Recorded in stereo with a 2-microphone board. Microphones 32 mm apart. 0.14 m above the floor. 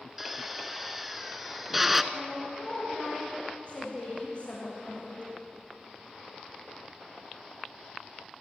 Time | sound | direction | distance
0.2 | a drill | 5° right (ahead or behind) | 1.0 m
2.1 | a woman speaking | 40° left (ahead or behind) | 6.5 m